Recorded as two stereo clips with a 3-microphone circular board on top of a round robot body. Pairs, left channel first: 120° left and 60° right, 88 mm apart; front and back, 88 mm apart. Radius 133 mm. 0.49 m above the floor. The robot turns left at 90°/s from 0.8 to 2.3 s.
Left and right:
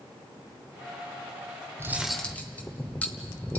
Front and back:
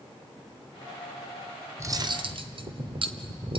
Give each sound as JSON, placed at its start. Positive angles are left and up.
{"t": 1.8, "sound": "cutlery clinking", "azimuth_deg": -120, "distance_m": 1.3}